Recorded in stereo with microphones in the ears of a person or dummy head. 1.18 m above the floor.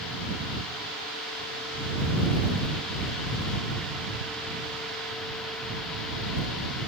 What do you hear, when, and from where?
Only background noise.